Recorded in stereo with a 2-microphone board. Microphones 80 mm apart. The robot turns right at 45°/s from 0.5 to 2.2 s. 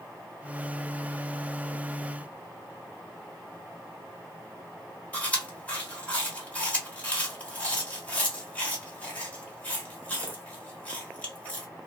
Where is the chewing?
20° left (ahead or behind), 1.3 m.